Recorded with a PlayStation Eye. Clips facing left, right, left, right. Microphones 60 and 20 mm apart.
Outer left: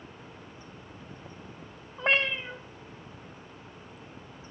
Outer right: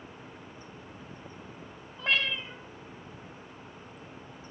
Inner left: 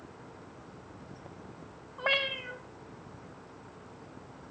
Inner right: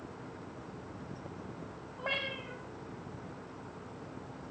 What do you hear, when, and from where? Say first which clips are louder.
2.0 s a cat meowing: outer left 3 dB, inner left 6 dB; 30° left (ahead or behind), 1.0 m